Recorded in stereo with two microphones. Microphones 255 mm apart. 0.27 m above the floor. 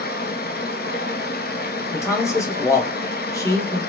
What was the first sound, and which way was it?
Running water, 40° left (ahead or behind).